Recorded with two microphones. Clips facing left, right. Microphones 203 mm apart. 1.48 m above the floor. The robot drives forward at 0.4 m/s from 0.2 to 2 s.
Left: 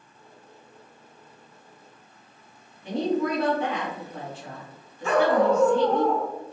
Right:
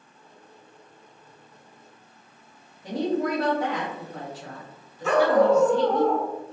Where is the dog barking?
Centre (ahead or behind), 1.0 m.